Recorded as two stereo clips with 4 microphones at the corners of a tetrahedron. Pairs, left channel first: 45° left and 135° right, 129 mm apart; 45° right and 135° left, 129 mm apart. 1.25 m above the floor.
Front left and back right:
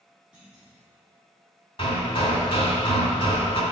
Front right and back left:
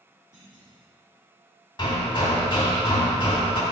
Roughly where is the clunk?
Behind left.